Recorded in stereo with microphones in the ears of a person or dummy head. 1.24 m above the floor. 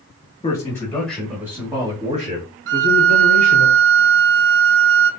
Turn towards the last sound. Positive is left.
turn(degrees=-65)  # may be behind; listen again after turning